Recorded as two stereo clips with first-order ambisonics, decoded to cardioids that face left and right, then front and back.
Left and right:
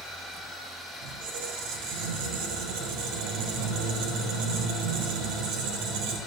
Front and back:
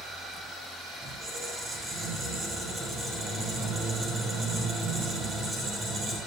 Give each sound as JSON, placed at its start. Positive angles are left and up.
{"t": 1.0, "sound": "a squeak", "azimuth_deg": -105, "distance_m": 4.0}